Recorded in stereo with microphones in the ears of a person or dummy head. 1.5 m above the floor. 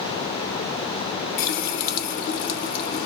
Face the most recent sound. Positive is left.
turn(degrees=45)  # may be behind; listen again after turning